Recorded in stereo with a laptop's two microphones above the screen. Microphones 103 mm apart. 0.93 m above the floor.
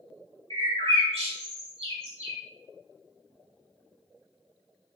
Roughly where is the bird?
Right.